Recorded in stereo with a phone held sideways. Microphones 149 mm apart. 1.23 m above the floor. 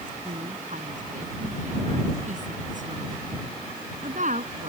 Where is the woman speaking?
55° right (ahead or behind).